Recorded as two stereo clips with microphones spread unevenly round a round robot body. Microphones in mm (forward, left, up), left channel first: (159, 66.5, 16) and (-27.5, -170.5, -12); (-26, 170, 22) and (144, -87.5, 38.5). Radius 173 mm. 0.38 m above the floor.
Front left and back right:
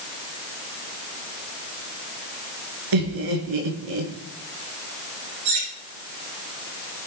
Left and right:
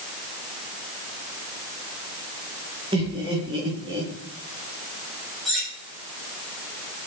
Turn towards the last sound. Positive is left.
turn(degrees=-145)